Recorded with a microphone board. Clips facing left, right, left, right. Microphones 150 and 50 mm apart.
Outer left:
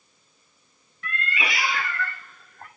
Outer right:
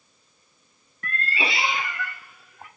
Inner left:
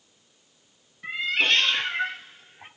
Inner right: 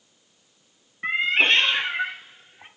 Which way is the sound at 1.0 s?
45° right (ahead or behind).